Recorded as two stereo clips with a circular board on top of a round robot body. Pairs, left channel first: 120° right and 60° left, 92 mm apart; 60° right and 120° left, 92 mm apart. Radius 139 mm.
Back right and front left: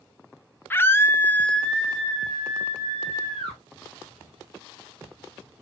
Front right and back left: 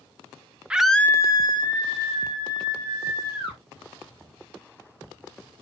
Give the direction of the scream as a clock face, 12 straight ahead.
6 o'clock.